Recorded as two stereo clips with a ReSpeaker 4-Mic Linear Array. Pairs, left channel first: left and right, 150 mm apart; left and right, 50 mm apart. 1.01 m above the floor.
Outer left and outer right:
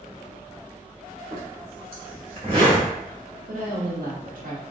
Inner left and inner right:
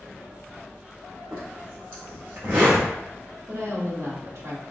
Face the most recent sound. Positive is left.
turn(degrees=-70)  # may be behind; listen again after turning